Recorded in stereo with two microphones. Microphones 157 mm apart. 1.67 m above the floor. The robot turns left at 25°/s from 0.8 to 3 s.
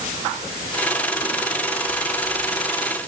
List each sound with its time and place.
Only background noise.